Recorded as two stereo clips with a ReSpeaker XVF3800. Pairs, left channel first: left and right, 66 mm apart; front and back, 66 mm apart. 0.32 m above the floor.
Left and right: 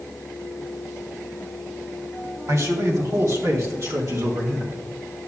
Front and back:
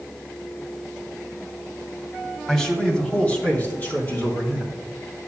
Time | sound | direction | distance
2.5 | a man speaking | 80° right | 2.0 m